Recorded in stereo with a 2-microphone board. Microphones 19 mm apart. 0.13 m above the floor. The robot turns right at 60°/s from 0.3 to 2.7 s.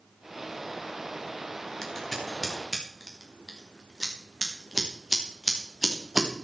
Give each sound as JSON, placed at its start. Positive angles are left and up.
{"t": 1.8, "sound": "scissors", "side_deg": 20, "distance_m": 4.5}